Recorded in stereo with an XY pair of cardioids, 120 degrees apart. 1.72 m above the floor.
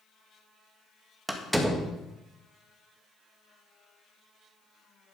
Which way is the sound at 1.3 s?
10° right.